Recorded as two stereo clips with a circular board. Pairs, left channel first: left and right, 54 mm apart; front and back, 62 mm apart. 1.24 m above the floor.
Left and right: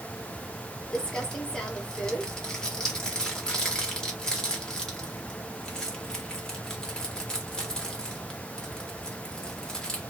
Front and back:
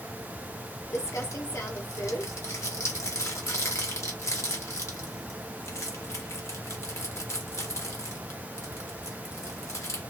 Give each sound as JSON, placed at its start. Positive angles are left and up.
{"t": 0.9, "sound": "crumpling", "azimuth_deg": 20, "distance_m": 1.3}